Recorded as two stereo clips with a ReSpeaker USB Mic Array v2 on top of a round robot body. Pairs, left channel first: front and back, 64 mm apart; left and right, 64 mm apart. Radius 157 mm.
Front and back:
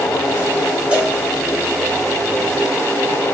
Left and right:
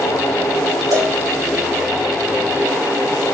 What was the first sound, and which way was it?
A cowbell, 110° right.